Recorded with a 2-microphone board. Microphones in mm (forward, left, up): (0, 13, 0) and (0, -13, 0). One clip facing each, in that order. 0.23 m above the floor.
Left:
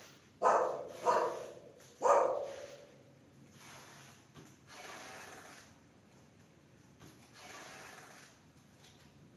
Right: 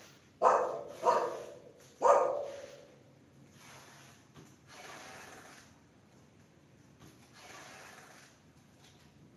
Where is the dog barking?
40° right (ahead or behind), 1.9 m.